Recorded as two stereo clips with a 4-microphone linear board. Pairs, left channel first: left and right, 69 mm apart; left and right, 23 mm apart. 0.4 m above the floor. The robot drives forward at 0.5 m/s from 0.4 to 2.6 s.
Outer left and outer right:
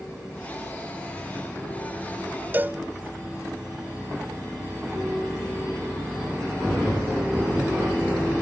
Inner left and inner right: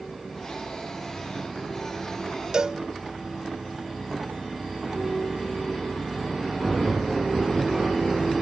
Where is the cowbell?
30° right (ahead or behind), 0.7 m.